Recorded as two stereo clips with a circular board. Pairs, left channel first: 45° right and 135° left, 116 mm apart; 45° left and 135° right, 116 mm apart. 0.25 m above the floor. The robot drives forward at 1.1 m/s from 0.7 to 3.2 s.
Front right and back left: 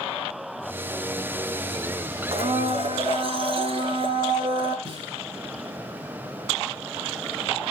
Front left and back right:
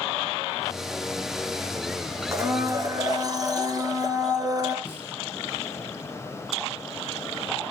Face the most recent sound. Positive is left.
turn(degrees=110)